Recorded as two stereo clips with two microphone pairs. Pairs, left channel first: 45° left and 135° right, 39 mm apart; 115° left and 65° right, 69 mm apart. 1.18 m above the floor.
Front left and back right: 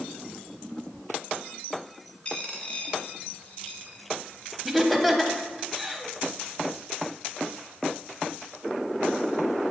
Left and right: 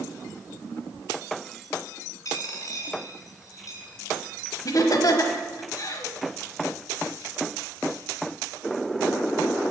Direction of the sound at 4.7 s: 130° left.